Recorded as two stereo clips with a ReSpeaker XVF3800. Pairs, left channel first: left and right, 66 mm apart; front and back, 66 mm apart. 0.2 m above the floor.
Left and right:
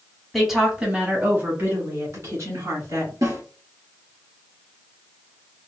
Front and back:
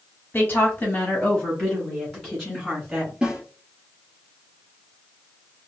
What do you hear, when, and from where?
0.3 s a woman speaking: straight ahead, 1.5 m; by 3.1 s 90° right, 2.5 m
3.2 s a snare drum: 105° right, 2.5 m